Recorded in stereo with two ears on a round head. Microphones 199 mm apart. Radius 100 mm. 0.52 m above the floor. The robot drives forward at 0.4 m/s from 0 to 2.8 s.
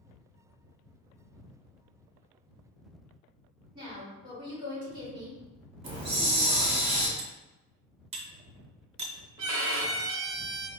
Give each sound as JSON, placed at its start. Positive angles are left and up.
{"t": 3.8, "sound": "a woman speaking", "side_deg": -20, "distance_m": 1.7}
{"t": 5.8, "sound": "a hiss", "side_deg": -30, "distance_m": 0.8}
{"t": 7.2, "sound": "cutlery clinking", "side_deg": -30, "distance_m": 0.5}
{"t": 9.4, "sound": "a violin", "side_deg": -70, "distance_m": 0.7}